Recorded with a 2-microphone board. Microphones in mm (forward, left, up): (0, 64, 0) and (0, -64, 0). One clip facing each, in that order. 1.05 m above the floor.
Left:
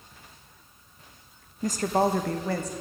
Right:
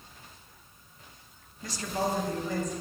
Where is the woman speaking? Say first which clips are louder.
Left 7 dB; 40° left (ahead or behind), 0.7 m; by 2.7 s 75° left (ahead or behind), 1.3 m.